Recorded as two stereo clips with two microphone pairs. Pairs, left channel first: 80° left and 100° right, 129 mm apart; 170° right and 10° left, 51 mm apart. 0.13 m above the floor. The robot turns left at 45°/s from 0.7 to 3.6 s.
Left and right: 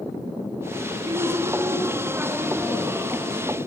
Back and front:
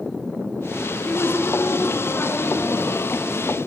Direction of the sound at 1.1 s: 120° right.